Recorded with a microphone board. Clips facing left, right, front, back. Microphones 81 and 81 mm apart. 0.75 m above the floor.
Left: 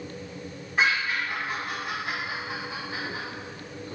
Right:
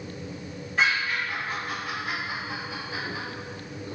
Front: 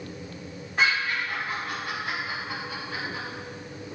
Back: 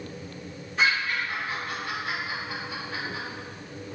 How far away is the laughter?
About 1.5 m.